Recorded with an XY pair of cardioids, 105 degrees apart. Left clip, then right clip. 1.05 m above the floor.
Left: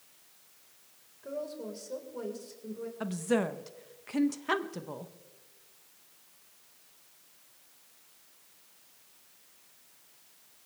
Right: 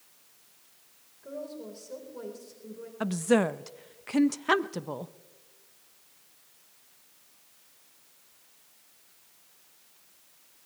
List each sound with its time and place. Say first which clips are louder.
1.2 s a woman speaking: left 2 dB; 15° left, 3.5 m
3.0 s a woman speaking: right 5 dB; 35° right, 0.6 m